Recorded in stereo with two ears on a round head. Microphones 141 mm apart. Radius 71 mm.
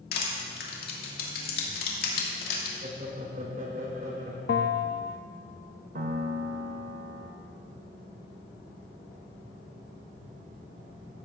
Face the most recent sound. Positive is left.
turn(degrees=-55)  # may be behind; listen again after turning